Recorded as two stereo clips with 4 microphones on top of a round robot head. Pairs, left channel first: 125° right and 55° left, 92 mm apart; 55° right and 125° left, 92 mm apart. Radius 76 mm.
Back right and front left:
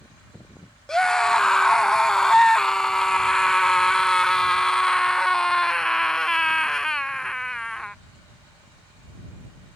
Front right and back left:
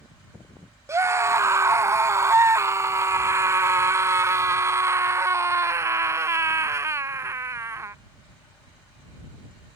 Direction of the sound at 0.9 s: 155° left.